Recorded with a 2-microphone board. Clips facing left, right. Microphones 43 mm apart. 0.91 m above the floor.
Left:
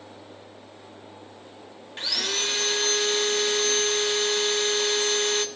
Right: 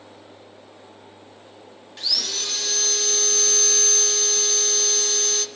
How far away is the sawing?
About 0.6 m.